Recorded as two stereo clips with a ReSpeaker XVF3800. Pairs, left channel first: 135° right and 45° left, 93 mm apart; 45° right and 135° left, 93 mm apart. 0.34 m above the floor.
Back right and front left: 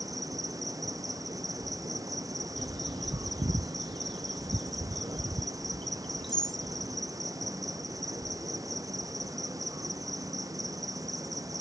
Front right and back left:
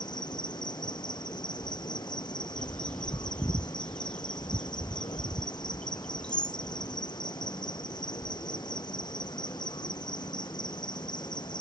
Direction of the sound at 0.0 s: 5° right.